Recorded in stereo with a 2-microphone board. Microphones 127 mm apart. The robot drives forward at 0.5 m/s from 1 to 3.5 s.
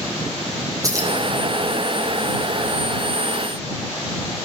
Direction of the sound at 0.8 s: 25° right (ahead or behind).